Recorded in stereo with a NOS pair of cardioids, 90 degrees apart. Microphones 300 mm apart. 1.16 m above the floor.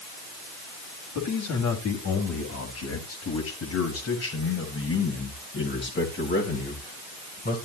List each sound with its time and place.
1.1 s a man speaking: 65° left, 6.5 m; by 7.6 s 30° left, 6.5 m